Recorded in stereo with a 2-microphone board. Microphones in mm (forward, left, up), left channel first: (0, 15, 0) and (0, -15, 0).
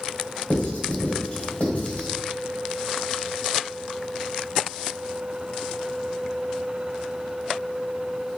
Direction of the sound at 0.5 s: 50° left (ahead or behind).